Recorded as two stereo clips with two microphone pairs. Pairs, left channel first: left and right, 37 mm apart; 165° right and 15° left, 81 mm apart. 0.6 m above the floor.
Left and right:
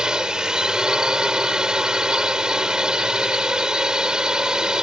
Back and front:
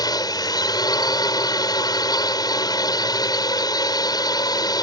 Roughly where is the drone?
Behind right.